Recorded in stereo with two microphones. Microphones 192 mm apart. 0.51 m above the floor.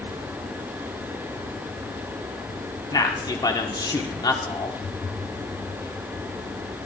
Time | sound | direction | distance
2.9 | a man speaking | 20° left (ahead or behind) | 1.4 m